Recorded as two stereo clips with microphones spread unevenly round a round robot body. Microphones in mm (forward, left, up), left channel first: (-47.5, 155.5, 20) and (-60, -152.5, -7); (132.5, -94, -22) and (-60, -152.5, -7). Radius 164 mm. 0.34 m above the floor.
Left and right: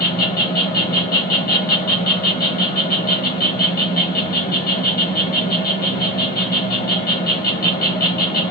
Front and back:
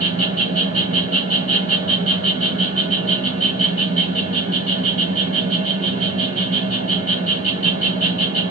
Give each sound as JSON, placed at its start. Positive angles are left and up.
{"t": 0.0, "sound": "an insect", "azimuth_deg": 150, "distance_m": 1.3}